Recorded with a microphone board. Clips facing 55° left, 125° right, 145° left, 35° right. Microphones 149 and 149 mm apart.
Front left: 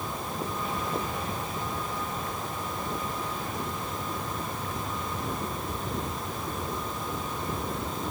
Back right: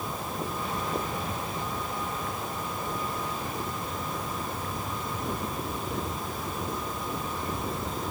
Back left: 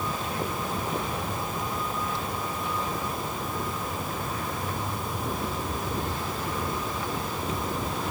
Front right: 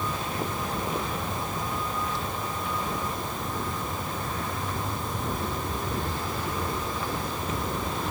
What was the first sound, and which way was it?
Only background noise.